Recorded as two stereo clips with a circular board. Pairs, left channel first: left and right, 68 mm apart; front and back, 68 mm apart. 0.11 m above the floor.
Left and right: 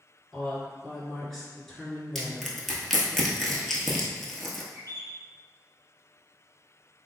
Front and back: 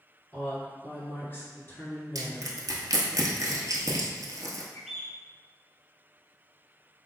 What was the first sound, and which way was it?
A woman speaking, 5° left.